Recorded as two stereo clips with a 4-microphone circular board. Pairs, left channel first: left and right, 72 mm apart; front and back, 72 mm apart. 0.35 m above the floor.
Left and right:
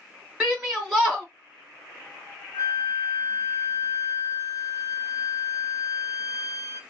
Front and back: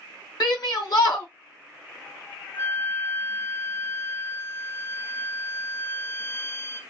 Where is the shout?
15° right, 2.5 m.